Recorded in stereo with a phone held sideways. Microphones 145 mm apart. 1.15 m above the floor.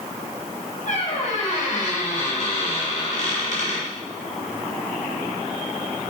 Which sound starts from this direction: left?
A squeak, at 0.9 s.